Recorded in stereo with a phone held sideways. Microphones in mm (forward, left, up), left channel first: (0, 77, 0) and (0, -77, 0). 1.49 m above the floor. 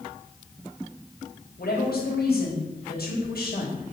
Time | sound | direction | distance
1.6 | a woman speaking | 85° left | 3.5 m